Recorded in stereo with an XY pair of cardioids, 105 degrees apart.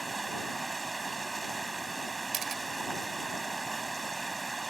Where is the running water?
20° right.